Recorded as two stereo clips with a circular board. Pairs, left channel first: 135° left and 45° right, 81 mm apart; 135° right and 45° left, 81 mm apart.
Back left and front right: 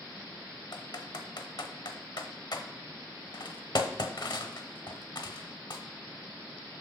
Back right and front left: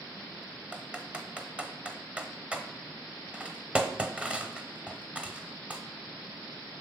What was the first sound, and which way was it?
Typing on a keyboard, 120° left.